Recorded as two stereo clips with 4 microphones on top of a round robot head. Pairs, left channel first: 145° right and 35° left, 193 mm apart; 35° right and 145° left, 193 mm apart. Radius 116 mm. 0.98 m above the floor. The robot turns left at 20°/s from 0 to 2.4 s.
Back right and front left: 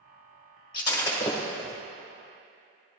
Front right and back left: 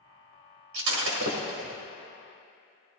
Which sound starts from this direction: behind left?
Breaking glass, at 0.7 s.